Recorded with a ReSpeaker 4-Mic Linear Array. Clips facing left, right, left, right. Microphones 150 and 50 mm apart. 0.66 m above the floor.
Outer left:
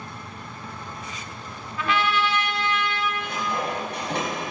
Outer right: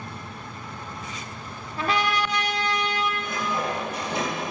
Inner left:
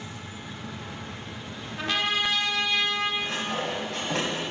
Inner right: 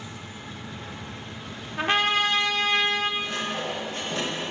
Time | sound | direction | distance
1.8 | a trumpet | 40° right (ahead or behind) | 1.0 m
3.2 | sawing | 70° left (ahead or behind) | 4 m